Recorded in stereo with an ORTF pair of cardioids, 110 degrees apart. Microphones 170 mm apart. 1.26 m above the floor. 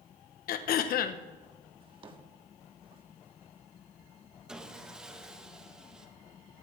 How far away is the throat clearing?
About 1.0 m.